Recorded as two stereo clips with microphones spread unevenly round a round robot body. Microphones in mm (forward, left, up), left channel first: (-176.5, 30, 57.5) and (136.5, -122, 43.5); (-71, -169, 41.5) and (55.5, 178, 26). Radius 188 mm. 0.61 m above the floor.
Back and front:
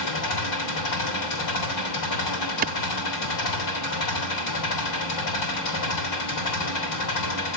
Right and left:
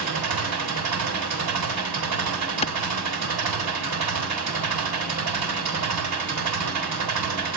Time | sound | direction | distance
0.0 | an engine running | 115° left | 3.5 m
2.6 | a clap | 50° right | 0.6 m